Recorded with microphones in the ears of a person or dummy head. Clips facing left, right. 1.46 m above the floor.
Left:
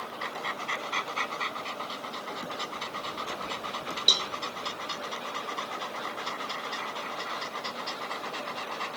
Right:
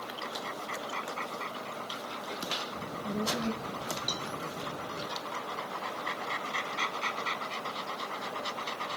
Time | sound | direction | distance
2.8 | a child speaking | 70° right (ahead or behind) | ?
4.1 | a cowbell | 40° left (ahead or behind) | ?